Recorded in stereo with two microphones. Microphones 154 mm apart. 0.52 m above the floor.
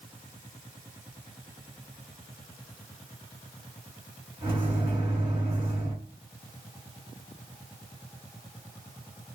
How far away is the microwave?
About 1.5 m.